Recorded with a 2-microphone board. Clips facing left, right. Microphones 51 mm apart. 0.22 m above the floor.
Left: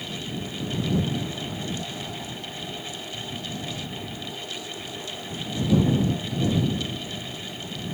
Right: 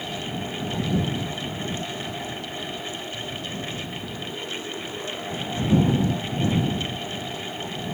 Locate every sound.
Only background noise.